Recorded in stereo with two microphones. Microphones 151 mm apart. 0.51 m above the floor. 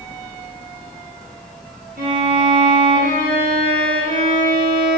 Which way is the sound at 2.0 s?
75° right (ahead or behind).